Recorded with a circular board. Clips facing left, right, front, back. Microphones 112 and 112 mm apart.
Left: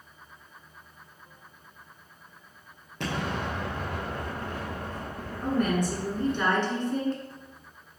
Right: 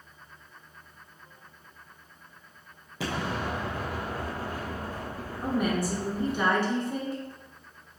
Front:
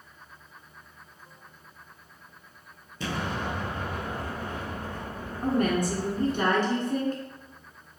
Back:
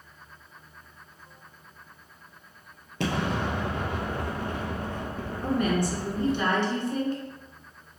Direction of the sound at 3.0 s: 175° right.